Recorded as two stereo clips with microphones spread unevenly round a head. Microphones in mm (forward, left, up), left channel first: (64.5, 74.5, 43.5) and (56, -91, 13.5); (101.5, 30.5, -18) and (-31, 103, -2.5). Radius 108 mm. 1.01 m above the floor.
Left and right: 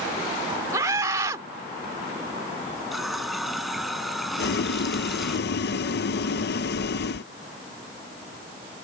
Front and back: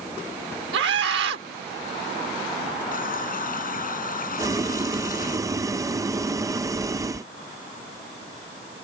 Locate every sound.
0.7 s a scream: 170° right
2.9 s a running tap: straight ahead
4.4 s boiling: 80° left